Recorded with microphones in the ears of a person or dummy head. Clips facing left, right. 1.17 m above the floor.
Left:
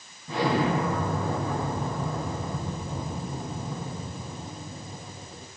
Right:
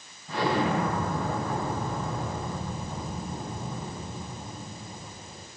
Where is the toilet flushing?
No toilet flushing in this recording.